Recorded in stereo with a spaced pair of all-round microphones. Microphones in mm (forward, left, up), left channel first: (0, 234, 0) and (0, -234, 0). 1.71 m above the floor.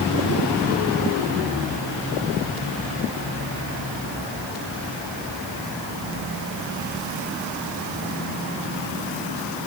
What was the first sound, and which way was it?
Only background noise.